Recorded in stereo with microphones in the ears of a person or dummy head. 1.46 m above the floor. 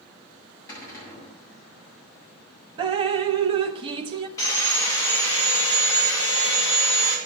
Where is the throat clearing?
No throat clearing in this recording.